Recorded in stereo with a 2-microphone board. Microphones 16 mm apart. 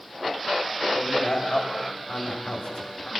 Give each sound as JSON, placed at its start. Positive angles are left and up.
{"t": 0.9, "sound": "a man speaking", "side_deg": 85, "distance_m": 6.5}